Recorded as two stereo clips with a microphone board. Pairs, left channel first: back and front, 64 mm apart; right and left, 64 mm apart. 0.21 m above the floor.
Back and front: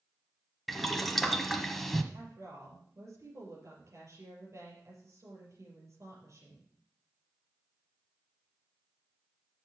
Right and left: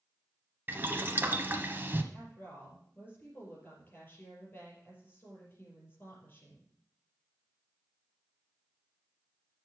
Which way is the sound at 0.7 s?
95° left.